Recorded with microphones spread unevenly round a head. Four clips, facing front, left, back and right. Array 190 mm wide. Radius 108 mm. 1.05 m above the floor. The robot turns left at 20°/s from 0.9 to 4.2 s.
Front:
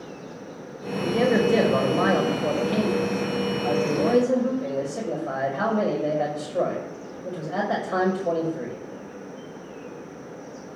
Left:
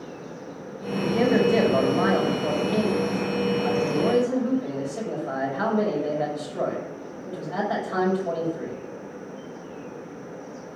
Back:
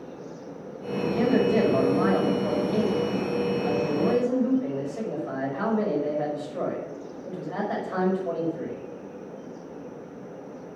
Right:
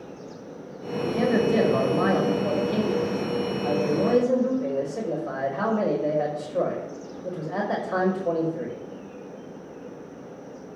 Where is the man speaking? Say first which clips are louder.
Left 2 dB, front 1 dB; 10° left, 4.5 m; by 8.8 s 55° right, 4.5 m.